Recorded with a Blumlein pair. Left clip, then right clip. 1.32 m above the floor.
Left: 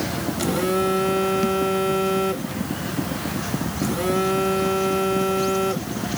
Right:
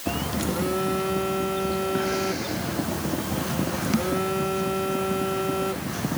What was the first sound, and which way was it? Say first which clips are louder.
A phone buzzing: left 6 dB; 15° left.